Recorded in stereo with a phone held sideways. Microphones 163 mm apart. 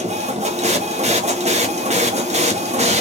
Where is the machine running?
45° right (ahead or behind), 0.8 m.